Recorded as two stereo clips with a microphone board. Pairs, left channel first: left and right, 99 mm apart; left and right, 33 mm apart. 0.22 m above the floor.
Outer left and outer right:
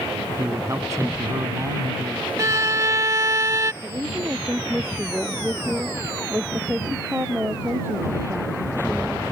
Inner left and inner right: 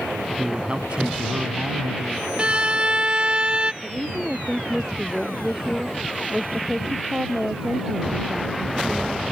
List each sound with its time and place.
0.4 s a man speaking: 35° right (ahead or behind)
2.4 s a violin: 35° right (ahead or behind)
3.8 s a woman speaking: 20° right (ahead or behind)